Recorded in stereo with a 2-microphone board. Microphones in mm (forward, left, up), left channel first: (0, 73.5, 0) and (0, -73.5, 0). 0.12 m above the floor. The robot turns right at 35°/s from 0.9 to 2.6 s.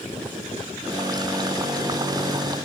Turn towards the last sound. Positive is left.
No sound to turn to.